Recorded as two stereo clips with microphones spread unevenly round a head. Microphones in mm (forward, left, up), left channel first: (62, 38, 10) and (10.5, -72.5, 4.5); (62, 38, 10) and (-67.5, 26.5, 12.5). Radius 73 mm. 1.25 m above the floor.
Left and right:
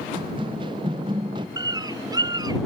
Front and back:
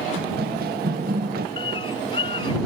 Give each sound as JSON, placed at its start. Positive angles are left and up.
{"t": 0.2, "sound": "running footsteps", "azimuth_deg": -175}
{"t": 1.6, "sound": "a bird", "azimuth_deg": -55}